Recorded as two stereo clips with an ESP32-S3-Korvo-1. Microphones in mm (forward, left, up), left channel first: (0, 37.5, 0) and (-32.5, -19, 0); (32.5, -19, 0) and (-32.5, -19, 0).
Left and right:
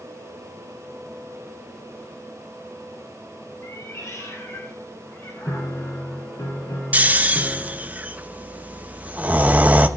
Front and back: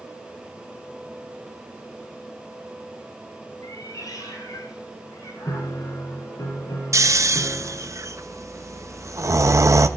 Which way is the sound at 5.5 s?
30° left.